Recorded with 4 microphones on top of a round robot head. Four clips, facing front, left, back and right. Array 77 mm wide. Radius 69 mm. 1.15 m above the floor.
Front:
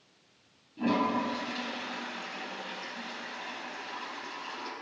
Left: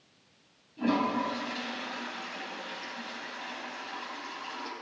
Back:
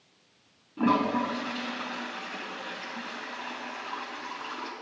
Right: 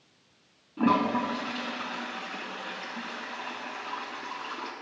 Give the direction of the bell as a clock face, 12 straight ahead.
No bell in this recording.